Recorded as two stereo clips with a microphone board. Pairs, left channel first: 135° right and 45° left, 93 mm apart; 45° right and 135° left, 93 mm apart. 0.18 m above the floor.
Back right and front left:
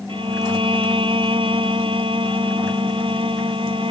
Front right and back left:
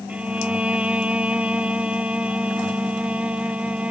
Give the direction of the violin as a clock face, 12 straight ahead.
10 o'clock.